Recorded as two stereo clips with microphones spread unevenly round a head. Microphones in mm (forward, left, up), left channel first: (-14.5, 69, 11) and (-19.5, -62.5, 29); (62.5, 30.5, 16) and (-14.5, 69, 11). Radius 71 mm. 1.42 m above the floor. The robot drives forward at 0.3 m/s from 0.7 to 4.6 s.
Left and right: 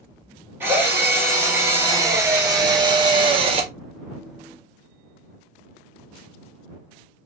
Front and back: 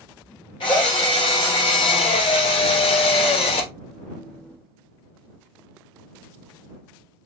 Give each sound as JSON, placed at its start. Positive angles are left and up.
{"t": 0.6, "sound": "a drill", "azimuth_deg": -20, "distance_m": 1.4}